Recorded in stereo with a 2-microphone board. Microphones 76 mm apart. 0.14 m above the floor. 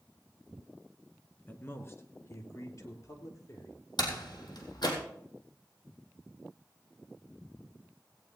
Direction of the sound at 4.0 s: 70° left (ahead or behind).